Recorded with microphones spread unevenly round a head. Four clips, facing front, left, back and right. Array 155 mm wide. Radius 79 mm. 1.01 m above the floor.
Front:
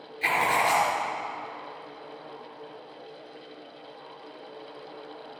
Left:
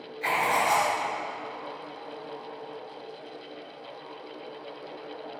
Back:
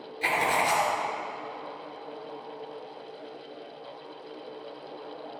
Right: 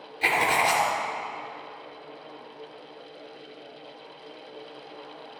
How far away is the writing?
About 3 m.